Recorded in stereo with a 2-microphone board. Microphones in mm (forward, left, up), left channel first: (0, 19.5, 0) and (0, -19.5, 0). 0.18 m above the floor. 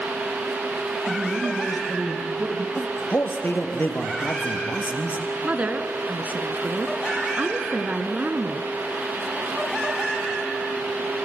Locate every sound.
1.1 s a man speaking: 60° right (ahead or behind), 4.5 m
2.8 s a man speaking: 60° left (ahead or behind), 3.5 m
5.4 s a woman speaking: 45° right (ahead or behind), 1.7 m